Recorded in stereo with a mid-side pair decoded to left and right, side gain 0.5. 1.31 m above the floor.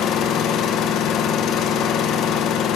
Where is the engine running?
65° left, 1.0 m.